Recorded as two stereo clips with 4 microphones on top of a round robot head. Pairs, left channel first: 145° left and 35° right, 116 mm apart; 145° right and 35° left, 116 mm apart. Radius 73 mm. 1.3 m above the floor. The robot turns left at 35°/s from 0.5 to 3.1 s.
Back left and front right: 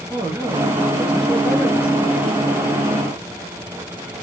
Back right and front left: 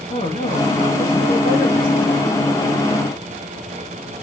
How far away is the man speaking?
About 1.4 m.